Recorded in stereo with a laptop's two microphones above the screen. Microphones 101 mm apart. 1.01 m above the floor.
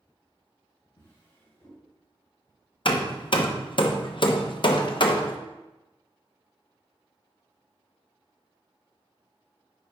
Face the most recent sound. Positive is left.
turn(degrees=55)  # may be behind; listen again after turning